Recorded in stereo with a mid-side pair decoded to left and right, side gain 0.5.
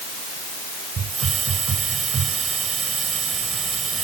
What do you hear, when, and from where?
1.0 s a hiss: 40° right